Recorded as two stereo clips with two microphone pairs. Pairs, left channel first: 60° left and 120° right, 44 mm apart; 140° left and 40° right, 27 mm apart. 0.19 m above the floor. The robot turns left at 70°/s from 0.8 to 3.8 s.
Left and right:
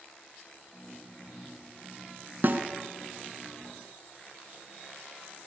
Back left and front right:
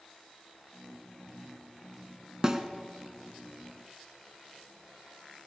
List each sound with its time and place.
2.4 s a snare drum: 95° right, 0.9 m; by 2.6 s 105° right, 0.9 m